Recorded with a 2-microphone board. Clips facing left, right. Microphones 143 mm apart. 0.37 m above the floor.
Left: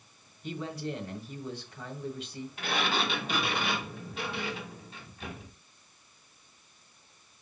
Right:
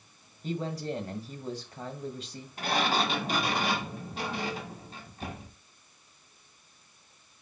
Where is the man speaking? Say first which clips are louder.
Right 3 dB; 40° right (ahead or behind), 1.8 m.